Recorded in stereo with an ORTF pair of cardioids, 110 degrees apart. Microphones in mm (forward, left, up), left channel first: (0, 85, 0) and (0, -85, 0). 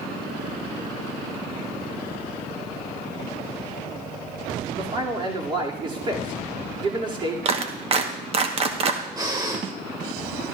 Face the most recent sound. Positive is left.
turn(degrees=-25)